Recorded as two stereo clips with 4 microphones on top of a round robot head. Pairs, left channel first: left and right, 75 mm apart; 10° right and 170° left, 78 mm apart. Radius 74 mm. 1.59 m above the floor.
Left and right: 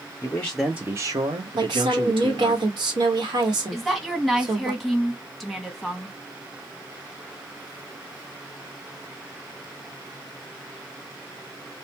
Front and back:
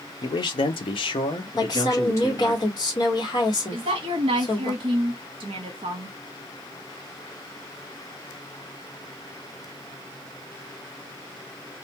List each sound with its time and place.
0.2 s a man speaking: 25° left, 0.6 m; by 2.6 s 75° right, 1.4 m
1.6 s a woman speaking: 50° right, 1.2 m
3.7 s a woman speaking: straight behind, 0.7 m